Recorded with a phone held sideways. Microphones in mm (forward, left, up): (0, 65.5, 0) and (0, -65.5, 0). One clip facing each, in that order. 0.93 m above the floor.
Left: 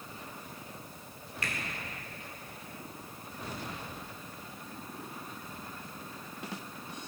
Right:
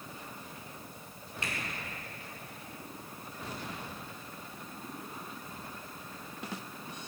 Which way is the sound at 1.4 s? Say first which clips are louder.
Even; 25° right (ahead or behind).